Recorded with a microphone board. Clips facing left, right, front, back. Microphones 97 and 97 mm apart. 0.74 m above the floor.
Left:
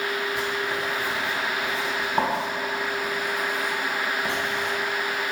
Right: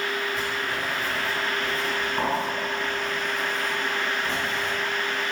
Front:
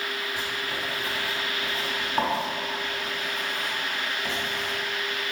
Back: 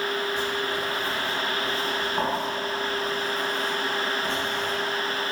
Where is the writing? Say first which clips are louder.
Left 2 dB, back 5 dB; 75° left, 2.5 m.